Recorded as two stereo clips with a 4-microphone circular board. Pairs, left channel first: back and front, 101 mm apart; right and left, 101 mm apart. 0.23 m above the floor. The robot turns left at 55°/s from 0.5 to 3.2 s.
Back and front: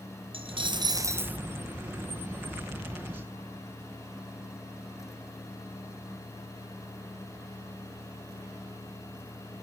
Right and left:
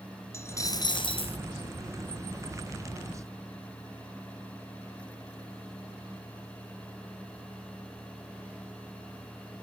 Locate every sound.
0.3 s a dropped coin: 25° right, 1.1 m; by 1.4 s 75° right, 1.1 m